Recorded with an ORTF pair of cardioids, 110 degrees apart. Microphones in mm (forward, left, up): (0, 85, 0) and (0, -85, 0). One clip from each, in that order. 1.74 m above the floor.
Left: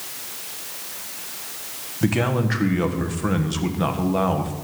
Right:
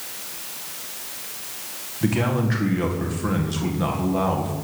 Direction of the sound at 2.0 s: 25° left.